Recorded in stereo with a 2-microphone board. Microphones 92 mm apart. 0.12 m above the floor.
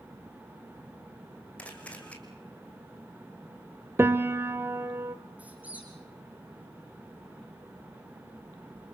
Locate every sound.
1.6 s a camera shutter: 15° left (ahead or behind), 3 m
4.0 s a piano: 25° right (ahead or behind), 1.0 m
5.4 s a squeak: 15° right (ahead or behind), 4.5 m